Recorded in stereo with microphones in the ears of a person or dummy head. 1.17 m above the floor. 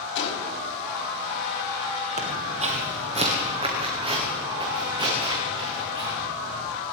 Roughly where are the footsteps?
Right.